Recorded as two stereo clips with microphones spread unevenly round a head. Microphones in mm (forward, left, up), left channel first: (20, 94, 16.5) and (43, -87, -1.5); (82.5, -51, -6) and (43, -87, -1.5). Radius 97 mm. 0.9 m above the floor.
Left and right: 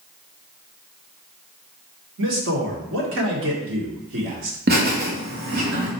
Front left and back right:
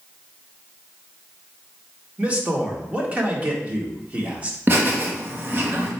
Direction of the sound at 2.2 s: 75° right.